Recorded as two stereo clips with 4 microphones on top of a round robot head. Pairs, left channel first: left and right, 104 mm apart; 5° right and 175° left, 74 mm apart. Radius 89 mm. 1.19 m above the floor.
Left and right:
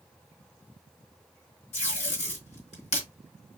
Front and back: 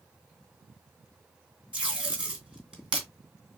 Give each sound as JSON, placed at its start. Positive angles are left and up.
{"t": 1.7, "sound": "tape being pulled", "azimuth_deg": 100, "distance_m": 2.5}